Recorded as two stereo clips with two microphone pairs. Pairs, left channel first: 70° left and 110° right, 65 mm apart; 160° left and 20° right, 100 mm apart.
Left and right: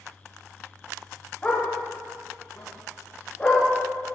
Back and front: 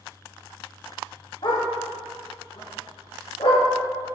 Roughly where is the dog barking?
Behind left.